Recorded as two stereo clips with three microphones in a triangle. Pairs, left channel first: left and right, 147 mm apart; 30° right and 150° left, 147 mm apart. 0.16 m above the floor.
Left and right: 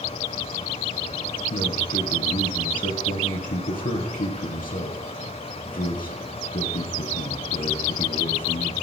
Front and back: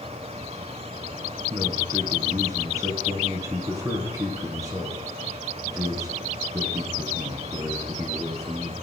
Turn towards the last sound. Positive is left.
turn(degrees=85)